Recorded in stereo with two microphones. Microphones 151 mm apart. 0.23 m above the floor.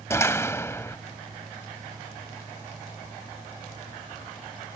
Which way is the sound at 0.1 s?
20° left (ahead or behind).